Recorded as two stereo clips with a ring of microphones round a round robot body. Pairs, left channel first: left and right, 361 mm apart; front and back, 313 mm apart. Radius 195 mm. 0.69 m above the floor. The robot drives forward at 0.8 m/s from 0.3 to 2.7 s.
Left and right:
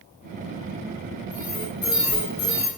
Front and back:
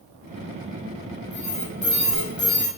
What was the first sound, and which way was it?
An alarm, 25° left.